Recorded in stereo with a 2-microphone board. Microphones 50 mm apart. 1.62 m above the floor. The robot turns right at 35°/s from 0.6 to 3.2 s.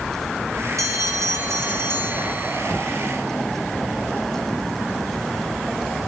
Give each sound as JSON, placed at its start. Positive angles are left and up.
{"t": 0.8, "sound": "a bell", "azimuth_deg": -90, "distance_m": 0.9}